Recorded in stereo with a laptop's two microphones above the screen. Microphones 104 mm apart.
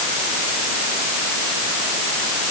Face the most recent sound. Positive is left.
No sound to turn to.